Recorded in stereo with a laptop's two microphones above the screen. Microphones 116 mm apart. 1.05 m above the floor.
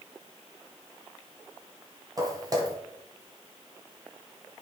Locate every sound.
2.2 s footsteps: 30° right (ahead or behind), 1.4 m